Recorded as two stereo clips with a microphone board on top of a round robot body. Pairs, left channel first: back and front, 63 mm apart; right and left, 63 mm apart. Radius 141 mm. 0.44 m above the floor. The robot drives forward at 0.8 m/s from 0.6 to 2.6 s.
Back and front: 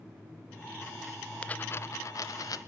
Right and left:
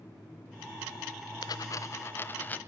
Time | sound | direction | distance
1.4 | a dropped coin | 105° right | 0.5 m